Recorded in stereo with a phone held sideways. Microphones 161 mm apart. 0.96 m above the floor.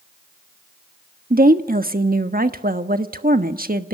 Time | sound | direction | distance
1.3 | a woman speaking | 65° right (ahead or behind) | 1.3 m